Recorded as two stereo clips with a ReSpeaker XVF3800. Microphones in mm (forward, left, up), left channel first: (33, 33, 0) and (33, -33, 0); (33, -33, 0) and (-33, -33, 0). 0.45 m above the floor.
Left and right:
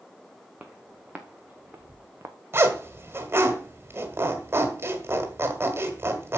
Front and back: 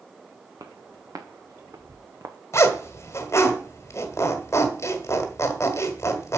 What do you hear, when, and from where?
0.6 s footsteps: 160° right, 2 m; by 2.4 s 140° right, 1.3 m
2.5 s a zipper: 40° right, 1.5 m